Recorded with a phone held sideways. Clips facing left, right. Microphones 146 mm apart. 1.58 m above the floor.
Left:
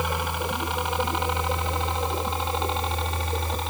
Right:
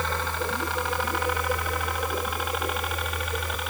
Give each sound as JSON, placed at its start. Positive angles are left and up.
{"t": 0.0, "sound": "a helicopter", "side_deg": 15}